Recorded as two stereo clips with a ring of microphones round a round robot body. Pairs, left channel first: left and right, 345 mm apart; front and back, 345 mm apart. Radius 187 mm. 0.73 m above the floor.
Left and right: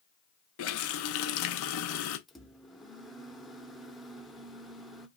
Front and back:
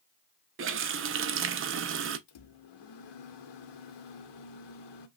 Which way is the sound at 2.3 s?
Straight ahead.